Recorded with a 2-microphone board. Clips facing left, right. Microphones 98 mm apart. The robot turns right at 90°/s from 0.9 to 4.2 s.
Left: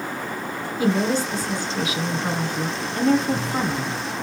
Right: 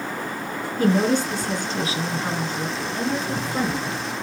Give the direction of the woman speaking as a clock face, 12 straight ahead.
4 o'clock.